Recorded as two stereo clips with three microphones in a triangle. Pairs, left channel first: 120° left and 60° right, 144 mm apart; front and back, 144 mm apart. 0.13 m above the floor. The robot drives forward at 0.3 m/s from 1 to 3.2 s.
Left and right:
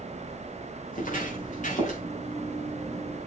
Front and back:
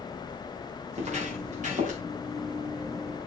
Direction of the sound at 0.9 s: 140° left.